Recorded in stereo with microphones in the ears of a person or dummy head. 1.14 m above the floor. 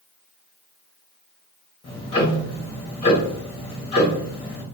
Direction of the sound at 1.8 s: 25° left (ahead or behind).